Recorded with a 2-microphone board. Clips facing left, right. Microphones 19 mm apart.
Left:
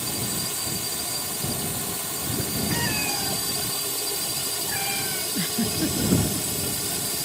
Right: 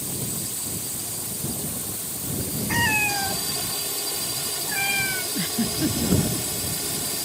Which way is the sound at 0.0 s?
65° left (ahead or behind).